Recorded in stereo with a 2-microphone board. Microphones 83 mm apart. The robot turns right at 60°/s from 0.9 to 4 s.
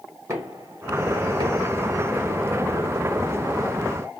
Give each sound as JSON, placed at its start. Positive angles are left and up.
{"t": 0.3, "sound": "knocking", "side_deg": -35, "distance_m": 1.6}